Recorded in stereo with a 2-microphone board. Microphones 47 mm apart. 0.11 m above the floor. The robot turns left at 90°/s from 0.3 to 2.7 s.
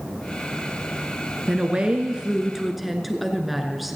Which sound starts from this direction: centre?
A woman speaking, at 1.5 s.